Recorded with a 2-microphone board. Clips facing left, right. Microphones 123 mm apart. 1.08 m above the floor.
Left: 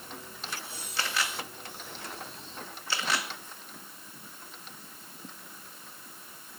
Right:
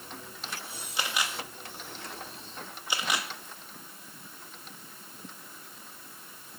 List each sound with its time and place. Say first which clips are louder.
1.0 s a camera shutter: even; 15° right (ahead or behind), 1.7 m